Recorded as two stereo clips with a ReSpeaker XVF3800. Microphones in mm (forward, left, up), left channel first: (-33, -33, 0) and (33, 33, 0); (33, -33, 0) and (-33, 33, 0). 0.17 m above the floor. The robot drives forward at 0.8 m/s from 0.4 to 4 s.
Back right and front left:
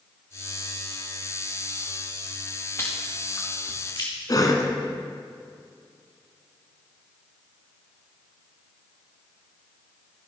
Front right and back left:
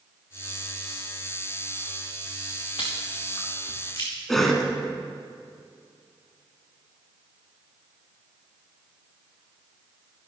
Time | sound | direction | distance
2.8 | chewing | 75° right | 3 m
4.3 | a cough | 130° right | 1.4 m